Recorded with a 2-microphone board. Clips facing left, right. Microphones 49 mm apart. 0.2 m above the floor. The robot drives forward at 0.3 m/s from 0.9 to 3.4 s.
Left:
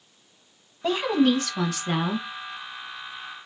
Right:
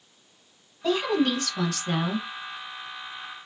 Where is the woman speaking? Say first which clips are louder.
Left 2 dB; 25° left (ahead or behind), 1.1 m; by 2.3 s 20° left (ahead or behind), 1.3 m.